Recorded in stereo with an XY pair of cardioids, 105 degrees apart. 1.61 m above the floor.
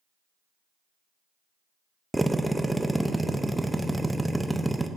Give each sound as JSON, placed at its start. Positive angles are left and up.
{"t": 2.1, "sound": "a drill", "azimuth_deg": -10, "distance_m": 0.7}